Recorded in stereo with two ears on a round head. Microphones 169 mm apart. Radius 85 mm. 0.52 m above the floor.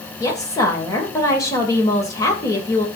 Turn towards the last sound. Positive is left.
turn(degrees=15)  # may be behind; listen again after turning